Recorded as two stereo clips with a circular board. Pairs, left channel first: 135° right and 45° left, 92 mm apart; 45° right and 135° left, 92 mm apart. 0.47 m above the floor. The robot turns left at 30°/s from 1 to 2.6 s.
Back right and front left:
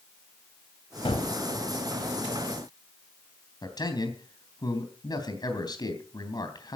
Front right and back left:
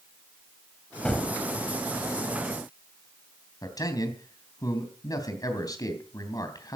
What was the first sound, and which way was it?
A gunshot, 125° right.